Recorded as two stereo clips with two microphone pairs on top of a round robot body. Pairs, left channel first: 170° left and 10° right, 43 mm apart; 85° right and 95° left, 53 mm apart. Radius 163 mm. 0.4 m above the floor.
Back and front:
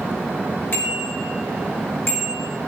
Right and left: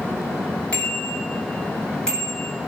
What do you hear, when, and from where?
0.7 s a bicycle bell: 150° right, 6 m; by 2.5 s 160° right, 5.5 m